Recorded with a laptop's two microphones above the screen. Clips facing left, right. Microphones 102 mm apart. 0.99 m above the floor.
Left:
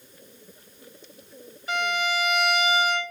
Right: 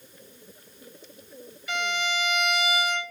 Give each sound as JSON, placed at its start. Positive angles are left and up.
{"t": 1.7, "sound": "a violin", "side_deg": 40, "distance_m": 1.3}